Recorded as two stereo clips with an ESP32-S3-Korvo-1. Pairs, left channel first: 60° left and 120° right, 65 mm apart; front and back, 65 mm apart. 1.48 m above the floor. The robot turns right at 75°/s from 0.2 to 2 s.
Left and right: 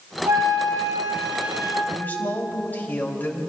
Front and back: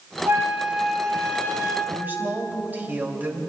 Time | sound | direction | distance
0.3 | a flute | 140° right | 2.5 m
1.9 | a woman speaking | 115° left | 2.5 m